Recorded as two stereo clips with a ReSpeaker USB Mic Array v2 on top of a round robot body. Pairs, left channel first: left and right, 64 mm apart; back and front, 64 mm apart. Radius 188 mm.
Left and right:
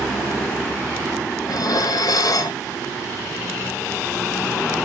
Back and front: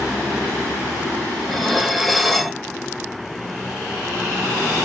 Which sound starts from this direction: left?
Dishes clattering, at 1.5 s.